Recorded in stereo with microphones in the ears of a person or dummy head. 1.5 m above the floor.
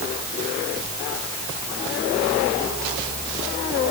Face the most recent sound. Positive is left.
No sound to turn to.